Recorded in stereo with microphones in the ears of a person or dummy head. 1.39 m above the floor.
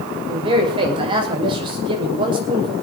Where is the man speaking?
25° right (ahead or behind), 5.5 m.